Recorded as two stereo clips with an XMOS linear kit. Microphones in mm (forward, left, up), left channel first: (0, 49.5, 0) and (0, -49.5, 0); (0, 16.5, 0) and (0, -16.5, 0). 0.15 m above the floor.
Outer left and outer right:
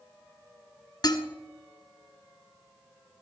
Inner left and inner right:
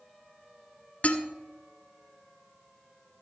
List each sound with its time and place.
1.0 s dishes clattering: 45° left (ahead or behind), 1.3 m